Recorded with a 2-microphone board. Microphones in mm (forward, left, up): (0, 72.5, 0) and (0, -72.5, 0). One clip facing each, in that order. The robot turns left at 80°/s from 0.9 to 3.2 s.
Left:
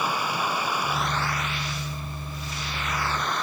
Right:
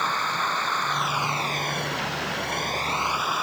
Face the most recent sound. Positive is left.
turn(degrees=-175)